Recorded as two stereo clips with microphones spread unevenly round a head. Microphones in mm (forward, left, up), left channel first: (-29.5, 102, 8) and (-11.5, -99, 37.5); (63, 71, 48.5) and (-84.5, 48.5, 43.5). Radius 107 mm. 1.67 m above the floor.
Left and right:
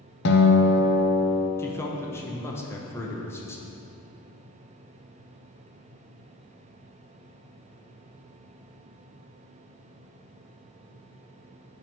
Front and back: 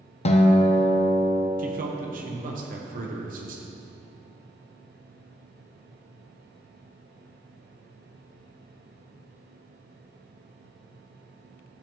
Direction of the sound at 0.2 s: 55° left.